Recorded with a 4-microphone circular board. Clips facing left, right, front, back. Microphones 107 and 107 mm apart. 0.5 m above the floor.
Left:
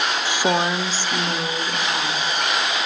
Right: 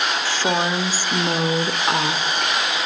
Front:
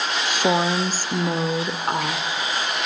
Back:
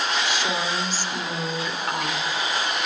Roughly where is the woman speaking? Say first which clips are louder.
Left 2 dB, front 5 dB; ahead left.